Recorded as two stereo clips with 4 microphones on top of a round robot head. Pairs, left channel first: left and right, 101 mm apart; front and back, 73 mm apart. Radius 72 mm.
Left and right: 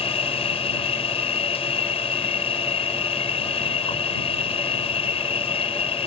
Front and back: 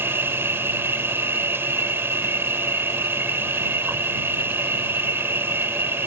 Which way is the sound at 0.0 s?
120° left.